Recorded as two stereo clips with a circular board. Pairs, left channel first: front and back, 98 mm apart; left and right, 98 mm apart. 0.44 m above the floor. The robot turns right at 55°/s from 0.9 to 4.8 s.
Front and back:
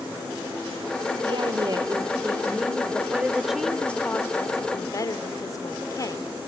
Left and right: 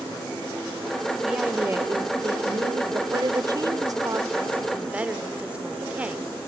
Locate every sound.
1.2 s a woman speaking: 175° right, 1.9 m; by 3.0 s 80° right, 1.9 m
3.1 s a woman speaking: 115° right, 1.0 m; by 6.3 s 20° right, 1.0 m